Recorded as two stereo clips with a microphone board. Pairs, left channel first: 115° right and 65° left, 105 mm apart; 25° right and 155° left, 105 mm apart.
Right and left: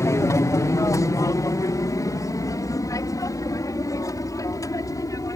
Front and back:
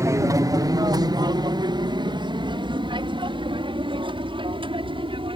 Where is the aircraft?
160° right; by 5.4 s 170° right.